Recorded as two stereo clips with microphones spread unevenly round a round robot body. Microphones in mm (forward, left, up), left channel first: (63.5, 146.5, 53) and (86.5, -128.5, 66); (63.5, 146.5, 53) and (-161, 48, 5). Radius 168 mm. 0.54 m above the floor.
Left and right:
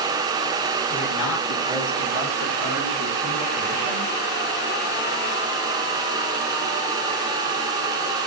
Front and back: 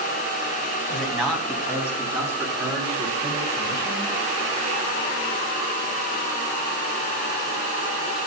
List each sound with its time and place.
0.9 s a man speaking: 110° left, 3.5 m; by 4.2 s 130° left, 7 m